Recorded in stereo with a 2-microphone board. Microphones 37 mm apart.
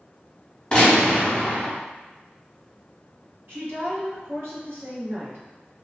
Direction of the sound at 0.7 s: 20° left (ahead or behind).